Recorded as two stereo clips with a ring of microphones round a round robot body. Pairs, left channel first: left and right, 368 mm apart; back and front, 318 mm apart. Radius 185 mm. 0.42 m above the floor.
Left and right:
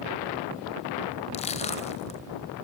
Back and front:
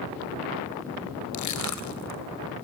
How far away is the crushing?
About 3 m.